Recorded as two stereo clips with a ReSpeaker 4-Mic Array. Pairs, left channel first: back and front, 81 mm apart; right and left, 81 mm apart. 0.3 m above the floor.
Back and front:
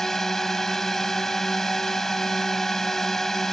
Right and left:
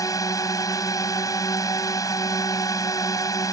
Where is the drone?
95° right.